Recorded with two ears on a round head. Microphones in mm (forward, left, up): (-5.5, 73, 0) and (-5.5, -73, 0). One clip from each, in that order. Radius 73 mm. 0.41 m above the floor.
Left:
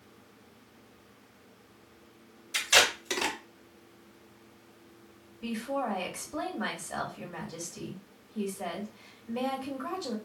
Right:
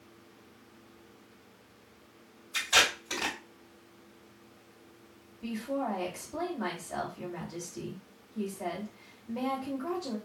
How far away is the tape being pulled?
About 1.6 m.